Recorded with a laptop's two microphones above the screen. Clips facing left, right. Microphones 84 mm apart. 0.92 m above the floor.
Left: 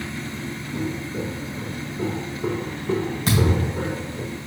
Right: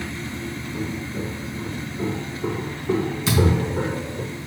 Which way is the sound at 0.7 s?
20° left (ahead or behind).